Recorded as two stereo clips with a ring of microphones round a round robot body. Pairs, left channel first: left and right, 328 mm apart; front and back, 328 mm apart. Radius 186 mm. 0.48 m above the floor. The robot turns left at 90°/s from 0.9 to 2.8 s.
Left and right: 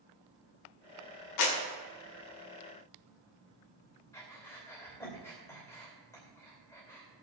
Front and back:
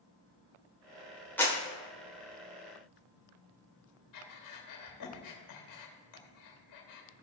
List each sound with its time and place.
1.4 s a clap: 85° left, 1.8 m; by 1.6 s 65° left, 1.8 m
4.1 s breathing: 10° left, 2.5 m